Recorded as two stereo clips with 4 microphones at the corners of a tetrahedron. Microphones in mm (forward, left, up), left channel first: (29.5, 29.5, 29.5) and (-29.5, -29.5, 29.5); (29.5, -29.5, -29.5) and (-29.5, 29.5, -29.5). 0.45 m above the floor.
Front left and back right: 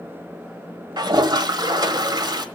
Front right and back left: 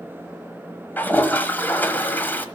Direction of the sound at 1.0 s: 110° right.